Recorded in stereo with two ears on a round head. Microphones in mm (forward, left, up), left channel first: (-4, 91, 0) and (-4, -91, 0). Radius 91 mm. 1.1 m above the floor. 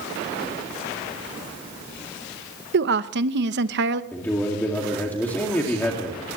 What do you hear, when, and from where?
2.7 s a woman speaking: 60° right (ahead or behind), 0.9 m
4.1 s a man speaking: 10° left (ahead or behind), 2 m